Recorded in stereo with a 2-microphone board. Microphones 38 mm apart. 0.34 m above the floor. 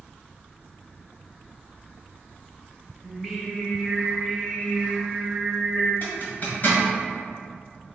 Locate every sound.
3.0 s singing: 5° left (ahead or behind), 0.8 m
6.0 s a zipper: 45° left (ahead or behind), 1.2 m